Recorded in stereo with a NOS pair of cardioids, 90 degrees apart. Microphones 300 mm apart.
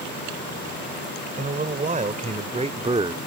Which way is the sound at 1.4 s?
25° right.